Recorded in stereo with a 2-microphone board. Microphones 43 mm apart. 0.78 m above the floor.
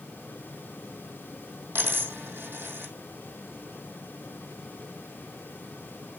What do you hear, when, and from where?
1.8 s a dropped coin: 65° right (ahead or behind), 3.5 m